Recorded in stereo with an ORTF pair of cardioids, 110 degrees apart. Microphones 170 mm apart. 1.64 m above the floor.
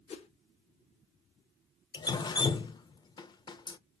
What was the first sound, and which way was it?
A whoosh, 40° left.